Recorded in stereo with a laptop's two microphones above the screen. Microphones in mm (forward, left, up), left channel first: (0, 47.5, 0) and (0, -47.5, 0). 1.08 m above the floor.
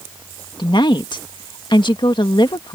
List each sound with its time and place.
0.6 s a woman speaking: 60° left (ahead or behind)